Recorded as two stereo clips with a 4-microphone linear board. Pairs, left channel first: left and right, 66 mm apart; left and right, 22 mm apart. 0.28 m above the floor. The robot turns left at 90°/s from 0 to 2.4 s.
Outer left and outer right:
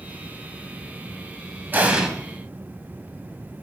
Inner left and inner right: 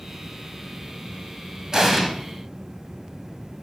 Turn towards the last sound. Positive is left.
turn(degrees=155)